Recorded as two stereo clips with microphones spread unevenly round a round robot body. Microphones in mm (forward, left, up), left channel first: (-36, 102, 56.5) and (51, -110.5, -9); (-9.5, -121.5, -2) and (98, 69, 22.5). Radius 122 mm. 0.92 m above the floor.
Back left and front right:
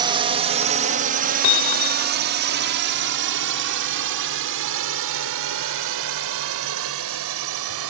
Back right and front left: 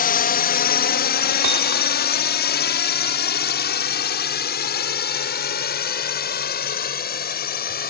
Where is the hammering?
75° left.